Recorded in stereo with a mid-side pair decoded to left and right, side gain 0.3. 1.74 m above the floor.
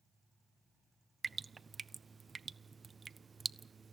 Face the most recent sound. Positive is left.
turn(degrees=-45)